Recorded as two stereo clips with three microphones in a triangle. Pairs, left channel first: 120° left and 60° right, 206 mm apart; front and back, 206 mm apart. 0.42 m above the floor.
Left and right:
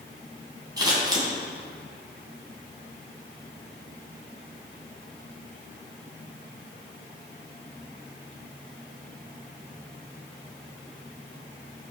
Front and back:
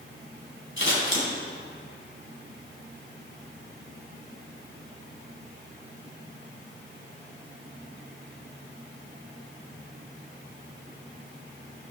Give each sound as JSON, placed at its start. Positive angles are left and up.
{"t": 0.8, "sound": "scissors", "azimuth_deg": 10, "distance_m": 3.0}